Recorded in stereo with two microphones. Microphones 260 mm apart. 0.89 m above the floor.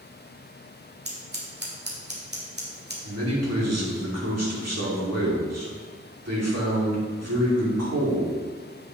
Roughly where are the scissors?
Right.